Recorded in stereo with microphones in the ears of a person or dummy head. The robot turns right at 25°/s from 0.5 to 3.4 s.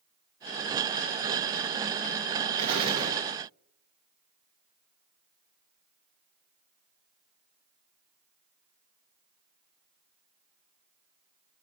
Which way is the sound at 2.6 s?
35° right (ahead or behind).